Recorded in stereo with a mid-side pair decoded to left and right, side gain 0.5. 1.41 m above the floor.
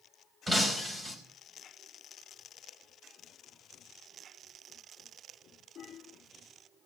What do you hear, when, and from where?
0.5 s breaking glass: 20° right, 4 m